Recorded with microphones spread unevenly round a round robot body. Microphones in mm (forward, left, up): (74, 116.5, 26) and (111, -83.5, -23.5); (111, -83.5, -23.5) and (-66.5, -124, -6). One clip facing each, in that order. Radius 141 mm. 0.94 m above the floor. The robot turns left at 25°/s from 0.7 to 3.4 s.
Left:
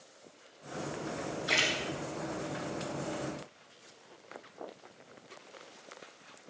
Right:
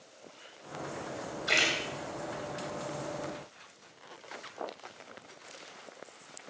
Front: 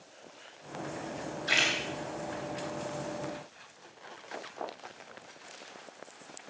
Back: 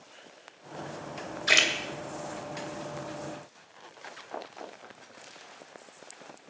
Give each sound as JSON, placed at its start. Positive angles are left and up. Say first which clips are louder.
{"t": 1.5, "sound": "a splash", "louder": "right 3 dB, back 5 dB", "azimuth_deg": -155, "distance_m": 2.5}